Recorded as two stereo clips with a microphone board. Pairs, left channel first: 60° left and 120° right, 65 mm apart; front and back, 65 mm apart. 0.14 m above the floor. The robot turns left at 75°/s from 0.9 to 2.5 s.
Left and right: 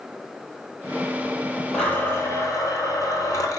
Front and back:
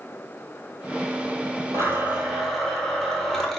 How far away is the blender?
About 0.8 m.